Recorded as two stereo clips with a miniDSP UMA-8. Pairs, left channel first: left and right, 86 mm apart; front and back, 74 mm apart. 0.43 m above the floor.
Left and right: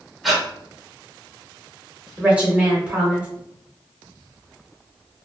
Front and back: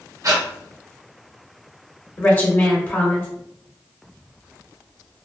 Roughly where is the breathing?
Behind.